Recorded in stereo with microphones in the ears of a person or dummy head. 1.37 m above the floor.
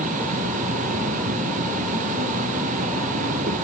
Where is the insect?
40° right (ahead or behind), 1.0 m.